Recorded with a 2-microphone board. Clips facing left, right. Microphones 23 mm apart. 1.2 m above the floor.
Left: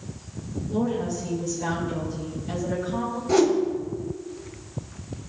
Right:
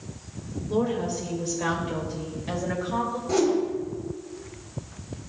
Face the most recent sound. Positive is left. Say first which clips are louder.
# left 4 dB
turn(degrees=15)  # may be behind; listen again after turning